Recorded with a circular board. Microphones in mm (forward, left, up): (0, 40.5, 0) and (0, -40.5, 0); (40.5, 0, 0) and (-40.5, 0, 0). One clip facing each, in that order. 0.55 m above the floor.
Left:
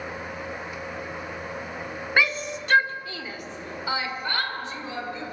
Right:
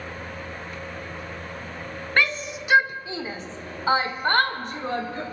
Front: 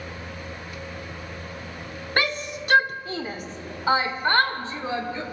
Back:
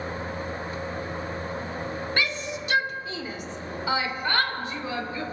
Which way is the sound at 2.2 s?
10° left.